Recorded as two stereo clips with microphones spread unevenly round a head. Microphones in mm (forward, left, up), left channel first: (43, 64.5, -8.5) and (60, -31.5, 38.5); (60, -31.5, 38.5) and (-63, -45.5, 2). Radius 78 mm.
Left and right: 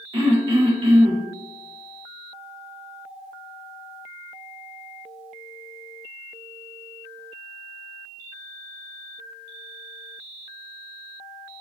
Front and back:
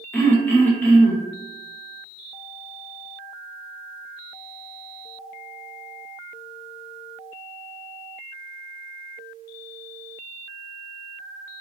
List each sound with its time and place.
0.1 s throat clearing: 65° right, 0.8 m